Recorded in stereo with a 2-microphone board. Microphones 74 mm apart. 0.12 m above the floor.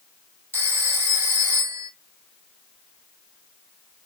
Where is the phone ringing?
30° right (ahead or behind), 2.0 m.